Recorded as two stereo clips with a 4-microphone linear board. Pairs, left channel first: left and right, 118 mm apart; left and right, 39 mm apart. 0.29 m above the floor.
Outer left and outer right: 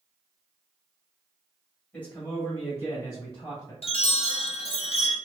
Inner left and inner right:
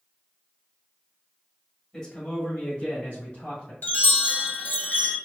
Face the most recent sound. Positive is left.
turn(degrees=55)  # may be behind; listen again after turning